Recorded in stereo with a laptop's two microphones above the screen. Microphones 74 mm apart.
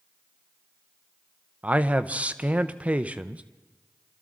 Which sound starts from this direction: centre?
A man speaking, at 1.6 s.